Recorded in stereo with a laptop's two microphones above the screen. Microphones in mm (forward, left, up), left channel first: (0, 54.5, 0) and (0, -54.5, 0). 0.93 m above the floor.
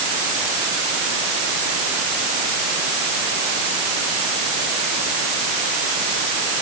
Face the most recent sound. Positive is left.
No sound to turn to.